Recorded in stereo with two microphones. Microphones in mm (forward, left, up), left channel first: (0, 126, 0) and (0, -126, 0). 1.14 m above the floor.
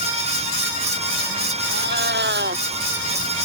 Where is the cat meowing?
45° right (ahead or behind).